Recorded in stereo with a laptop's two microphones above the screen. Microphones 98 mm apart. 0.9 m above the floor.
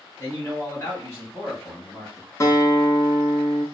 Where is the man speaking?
30° left (ahead or behind), 2.5 m.